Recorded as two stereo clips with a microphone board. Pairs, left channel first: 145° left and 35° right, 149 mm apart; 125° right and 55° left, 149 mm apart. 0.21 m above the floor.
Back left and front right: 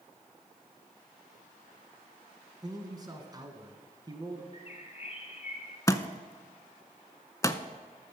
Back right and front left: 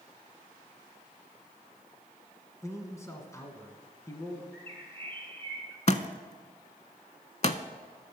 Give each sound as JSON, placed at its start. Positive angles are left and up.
{"t": 2.6, "sound": "a man speaking", "azimuth_deg": -70, "distance_m": 1.3}
{"t": 4.5, "sound": "a bird", "azimuth_deg": 165, "distance_m": 1.5}
{"t": 5.9, "sound": "a thud", "azimuth_deg": -150, "distance_m": 0.5}